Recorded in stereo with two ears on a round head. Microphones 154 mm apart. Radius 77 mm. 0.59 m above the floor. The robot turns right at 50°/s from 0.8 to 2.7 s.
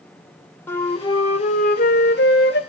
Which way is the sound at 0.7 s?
15° left.